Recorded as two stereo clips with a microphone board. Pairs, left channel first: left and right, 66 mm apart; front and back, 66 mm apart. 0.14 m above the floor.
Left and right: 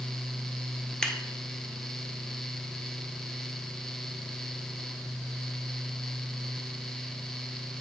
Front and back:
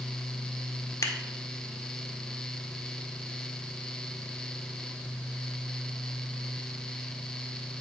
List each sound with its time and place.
1.0 s scissors: 15° left, 1.3 m